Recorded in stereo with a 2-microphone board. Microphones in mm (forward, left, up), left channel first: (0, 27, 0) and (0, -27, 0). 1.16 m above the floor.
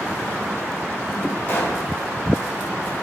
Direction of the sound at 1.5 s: 50° left (ahead or behind).